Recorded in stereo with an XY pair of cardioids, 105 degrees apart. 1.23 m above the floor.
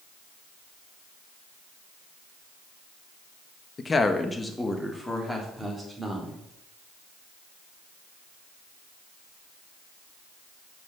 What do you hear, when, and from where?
3.8 s a woman speaking: 35° left, 1.3 m; by 6.4 s 5° right, 4 m